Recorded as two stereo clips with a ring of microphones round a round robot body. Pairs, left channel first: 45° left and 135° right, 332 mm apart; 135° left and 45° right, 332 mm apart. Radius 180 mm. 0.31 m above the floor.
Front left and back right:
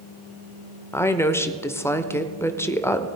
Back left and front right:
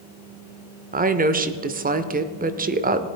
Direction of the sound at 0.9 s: 30° right.